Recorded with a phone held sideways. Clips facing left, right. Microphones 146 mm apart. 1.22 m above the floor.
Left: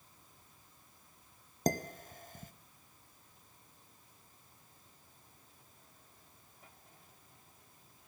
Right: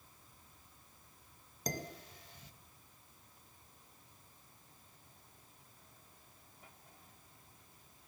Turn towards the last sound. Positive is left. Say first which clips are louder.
# left 8 dB
turn(degrees=50)  # may be behind; listen again after turning